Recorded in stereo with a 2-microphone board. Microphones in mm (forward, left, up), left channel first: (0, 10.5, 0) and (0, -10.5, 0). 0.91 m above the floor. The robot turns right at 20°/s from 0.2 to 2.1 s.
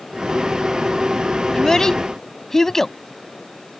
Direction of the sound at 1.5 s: 25° left (ahead or behind).